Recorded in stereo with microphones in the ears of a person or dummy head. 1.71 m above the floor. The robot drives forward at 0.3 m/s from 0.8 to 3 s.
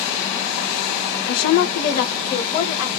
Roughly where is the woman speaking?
Left.